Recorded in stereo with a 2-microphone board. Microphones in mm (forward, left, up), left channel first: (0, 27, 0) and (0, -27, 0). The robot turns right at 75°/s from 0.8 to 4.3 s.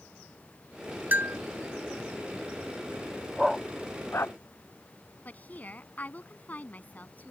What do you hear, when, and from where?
1.1 s a bell: 30° right (ahead or behind); by 1.4 s 50° right (ahead or behind)
3.4 s a dog barking: 15° right (ahead or behind); by 4.3 s 55° left (ahead or behind)
5.2 s a woman speaking: 30° left (ahead or behind)